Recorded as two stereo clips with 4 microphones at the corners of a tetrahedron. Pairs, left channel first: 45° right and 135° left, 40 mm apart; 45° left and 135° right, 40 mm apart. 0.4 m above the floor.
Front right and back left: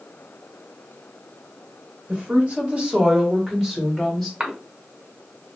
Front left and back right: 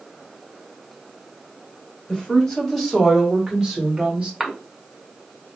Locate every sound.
2.1 s a woman speaking: 110° left, 1.6 m; by 4.3 s 130° right, 1.3 m
4.4 s a cough: 155° left, 0.9 m